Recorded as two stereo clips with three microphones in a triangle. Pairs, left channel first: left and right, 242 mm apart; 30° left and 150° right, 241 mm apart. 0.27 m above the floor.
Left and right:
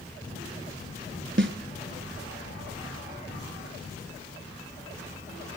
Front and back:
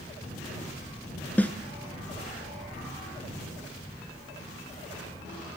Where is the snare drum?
55° right, 0.8 m.